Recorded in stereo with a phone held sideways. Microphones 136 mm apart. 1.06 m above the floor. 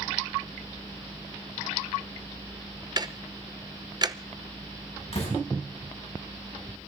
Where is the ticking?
30° right (ahead or behind), 0.7 m.